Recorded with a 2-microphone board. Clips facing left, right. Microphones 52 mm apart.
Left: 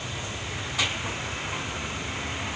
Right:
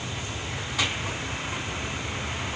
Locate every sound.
Only background noise.